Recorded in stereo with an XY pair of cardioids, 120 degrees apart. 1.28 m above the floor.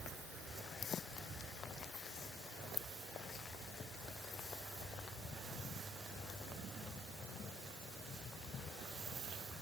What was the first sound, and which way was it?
Only background noise.